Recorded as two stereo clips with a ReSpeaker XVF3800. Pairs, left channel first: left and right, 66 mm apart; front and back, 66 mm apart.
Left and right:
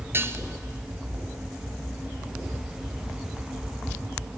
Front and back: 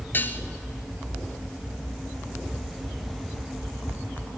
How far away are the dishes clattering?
About 1.3 m.